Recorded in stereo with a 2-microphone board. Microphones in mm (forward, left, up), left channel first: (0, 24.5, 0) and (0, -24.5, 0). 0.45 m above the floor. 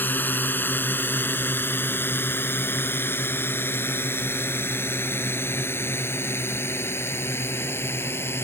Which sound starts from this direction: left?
A drone, at 0.0 s.